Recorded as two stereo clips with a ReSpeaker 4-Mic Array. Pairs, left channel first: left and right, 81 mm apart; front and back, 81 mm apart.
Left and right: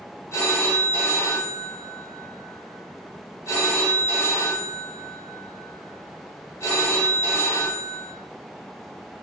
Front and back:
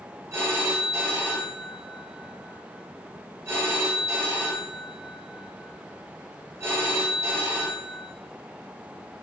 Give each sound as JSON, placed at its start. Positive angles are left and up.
{"t": 0.3, "sound": "a phone ringing", "azimuth_deg": 135, "distance_m": 0.9}